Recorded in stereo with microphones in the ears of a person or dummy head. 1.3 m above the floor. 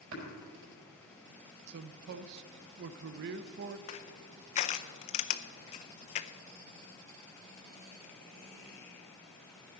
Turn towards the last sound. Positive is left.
turn(degrees=45)  # may be behind; listen again after turning